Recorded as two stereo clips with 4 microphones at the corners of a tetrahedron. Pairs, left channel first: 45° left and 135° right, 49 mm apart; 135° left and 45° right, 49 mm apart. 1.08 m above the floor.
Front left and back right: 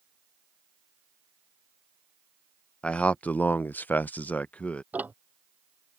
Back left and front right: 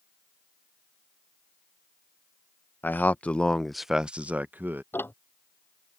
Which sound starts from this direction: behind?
Ticking, at 4.9 s.